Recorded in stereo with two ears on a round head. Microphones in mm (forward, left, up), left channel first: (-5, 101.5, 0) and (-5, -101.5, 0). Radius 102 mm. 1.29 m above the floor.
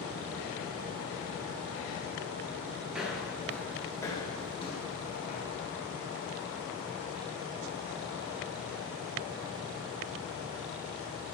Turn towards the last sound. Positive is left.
turn(degrees=35)  # may be behind; listen again after turning